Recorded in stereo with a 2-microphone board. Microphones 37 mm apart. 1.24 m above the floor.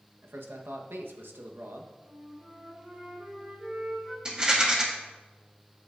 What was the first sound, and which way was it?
A man speaking, 80° right.